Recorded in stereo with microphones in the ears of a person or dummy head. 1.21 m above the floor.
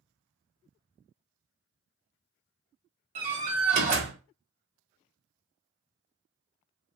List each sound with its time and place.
3.1 s a door slam: 30° right (ahead or behind), 1.6 m